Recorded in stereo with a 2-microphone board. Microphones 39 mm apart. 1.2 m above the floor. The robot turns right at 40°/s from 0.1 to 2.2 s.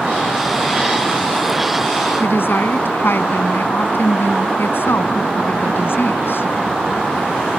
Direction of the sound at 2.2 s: 70° left (ahead or behind).